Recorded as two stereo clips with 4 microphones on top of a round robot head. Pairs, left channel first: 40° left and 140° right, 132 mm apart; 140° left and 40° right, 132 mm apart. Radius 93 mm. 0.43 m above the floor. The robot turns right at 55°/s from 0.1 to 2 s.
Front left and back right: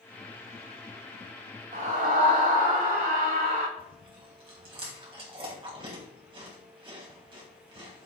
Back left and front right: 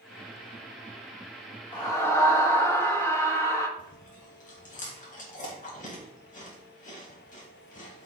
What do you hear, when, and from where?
1.7 s a scream: 165° right, 3.5 m; by 3.7 s 150° right, 3.5 m
3.8 s chewing: 170° left, 3 m